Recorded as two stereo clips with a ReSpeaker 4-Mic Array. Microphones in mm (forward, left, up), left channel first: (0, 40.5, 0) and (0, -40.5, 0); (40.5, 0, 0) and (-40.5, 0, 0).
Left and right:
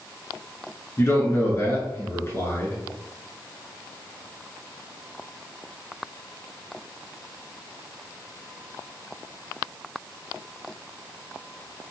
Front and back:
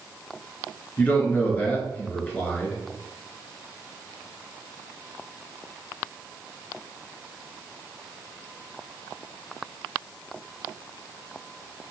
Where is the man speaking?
55° left, 1.5 m.